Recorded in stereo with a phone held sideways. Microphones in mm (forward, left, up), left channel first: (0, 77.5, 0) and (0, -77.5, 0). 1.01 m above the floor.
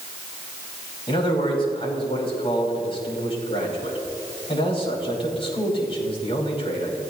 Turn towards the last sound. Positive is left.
turn(degrees=40)  # may be behind; listen again after turning